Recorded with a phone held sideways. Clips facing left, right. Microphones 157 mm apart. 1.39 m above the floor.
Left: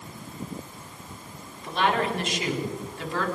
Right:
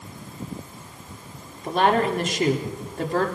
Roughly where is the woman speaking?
Right.